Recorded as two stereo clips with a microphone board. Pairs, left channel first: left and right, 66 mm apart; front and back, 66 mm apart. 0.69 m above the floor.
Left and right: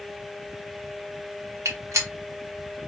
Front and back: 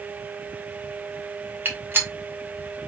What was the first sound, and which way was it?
A gunshot, 125° right.